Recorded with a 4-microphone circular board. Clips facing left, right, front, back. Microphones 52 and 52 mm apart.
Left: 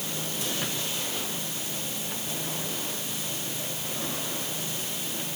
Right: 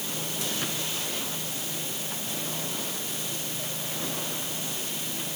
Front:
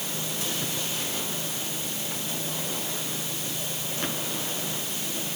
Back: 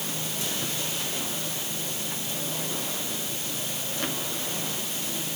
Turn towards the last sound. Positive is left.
No sound to turn to.